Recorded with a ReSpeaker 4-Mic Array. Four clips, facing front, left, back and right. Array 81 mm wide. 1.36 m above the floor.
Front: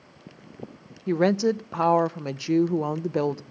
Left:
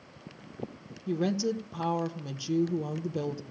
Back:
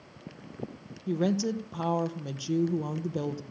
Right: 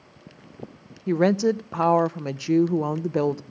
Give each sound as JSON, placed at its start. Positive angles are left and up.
{"t": 1.1, "sound": "a woman speaking", "azimuth_deg": -55, "distance_m": 0.8}